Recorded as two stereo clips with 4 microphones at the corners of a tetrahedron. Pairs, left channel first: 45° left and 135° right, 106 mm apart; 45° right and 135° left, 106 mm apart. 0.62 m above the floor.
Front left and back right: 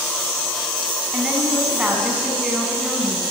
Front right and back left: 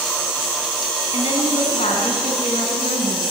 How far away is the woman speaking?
About 6 m.